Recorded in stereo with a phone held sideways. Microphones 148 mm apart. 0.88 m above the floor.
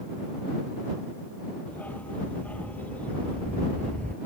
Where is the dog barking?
10° left (ahead or behind).